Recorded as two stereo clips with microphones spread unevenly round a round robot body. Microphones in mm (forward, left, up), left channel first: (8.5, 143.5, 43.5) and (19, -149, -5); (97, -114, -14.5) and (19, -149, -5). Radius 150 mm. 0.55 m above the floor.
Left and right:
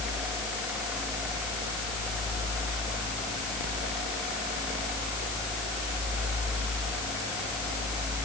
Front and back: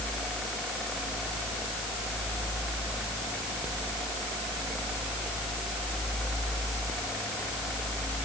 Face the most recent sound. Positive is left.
No sound to turn to.